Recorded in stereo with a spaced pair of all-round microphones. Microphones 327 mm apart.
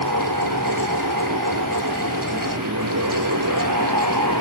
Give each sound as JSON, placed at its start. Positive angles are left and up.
{"t": 0.0, "sound": "a fan", "side_deg": -70}